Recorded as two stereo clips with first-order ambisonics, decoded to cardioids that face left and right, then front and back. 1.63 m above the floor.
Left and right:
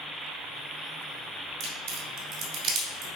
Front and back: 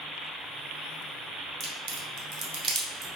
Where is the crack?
135° right, 2.5 m.